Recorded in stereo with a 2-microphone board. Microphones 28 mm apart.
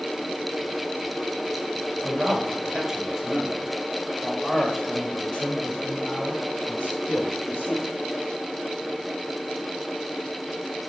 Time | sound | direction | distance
2.0 | a man speaking | 35° right (ahead or behind) | 1.8 m